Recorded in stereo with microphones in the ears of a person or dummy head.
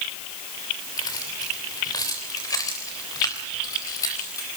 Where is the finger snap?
I don't hear a finger snap.